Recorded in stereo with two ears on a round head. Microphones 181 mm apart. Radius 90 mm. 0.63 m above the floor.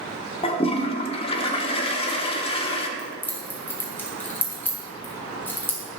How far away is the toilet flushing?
About 1.1 m.